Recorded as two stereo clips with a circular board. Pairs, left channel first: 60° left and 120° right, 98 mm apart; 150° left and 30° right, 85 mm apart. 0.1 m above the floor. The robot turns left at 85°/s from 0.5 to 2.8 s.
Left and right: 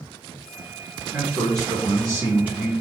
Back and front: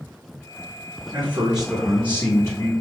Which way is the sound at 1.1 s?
70° right.